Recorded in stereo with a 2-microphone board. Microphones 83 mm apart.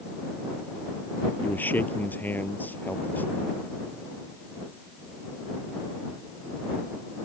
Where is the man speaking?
25° left (ahead or behind).